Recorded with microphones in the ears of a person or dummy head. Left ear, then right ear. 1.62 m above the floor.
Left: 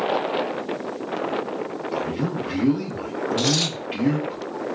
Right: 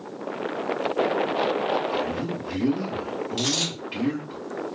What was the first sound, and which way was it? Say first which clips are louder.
A man speaking: left 1 dB; 10° left (ahead or behind).